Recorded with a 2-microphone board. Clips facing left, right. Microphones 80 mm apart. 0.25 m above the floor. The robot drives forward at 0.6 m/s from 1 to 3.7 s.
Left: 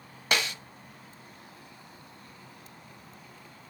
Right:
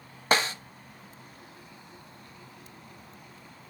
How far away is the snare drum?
About 0.6 m.